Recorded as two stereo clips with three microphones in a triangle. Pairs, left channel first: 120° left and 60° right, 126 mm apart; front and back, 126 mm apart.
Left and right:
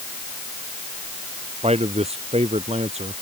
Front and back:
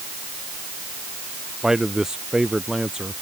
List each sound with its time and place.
1.6 s a man speaking: 95° right